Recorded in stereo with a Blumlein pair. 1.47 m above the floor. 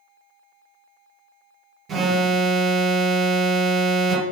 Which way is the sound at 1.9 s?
25° right.